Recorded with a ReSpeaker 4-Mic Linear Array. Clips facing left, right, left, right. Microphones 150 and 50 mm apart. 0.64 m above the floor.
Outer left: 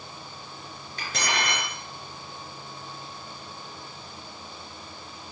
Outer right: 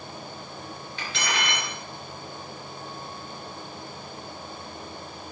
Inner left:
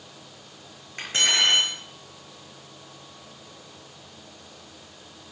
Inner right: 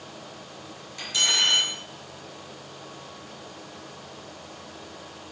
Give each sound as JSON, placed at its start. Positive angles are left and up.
{"t": 1.0, "sound": "cutlery clinking", "side_deg": 45, "distance_m": 6.0}